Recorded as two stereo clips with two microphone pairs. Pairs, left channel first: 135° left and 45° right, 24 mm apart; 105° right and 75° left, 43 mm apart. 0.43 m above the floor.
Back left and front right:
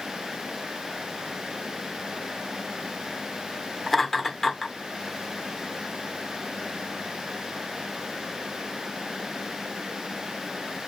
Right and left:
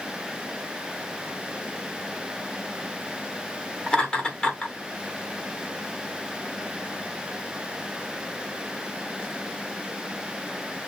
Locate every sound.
3.9 s laughter: 150° right, 1.1 m